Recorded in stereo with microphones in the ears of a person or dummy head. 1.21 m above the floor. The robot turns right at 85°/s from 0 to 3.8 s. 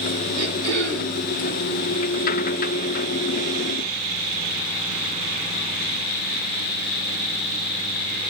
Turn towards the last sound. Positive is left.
turn(degrees=70)